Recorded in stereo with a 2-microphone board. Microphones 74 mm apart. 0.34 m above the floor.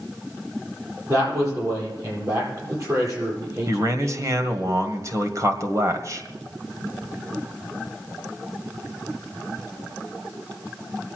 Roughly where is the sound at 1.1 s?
Right.